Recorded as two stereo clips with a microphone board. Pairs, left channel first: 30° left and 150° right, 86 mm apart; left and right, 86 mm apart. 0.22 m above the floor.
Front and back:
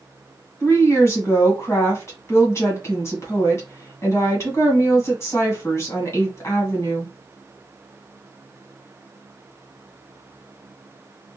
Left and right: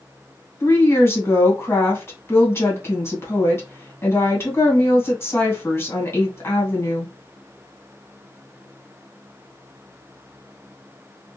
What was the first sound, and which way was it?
A woman speaking, 55° left.